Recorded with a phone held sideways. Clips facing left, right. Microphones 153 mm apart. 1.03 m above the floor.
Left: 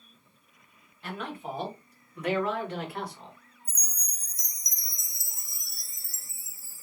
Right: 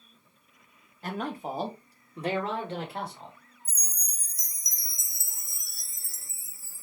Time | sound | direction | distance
1.0 | a man speaking | 40° right (ahead or behind) | 1.2 m
3.6 | a chime | 50° right (ahead or behind) | 0.5 m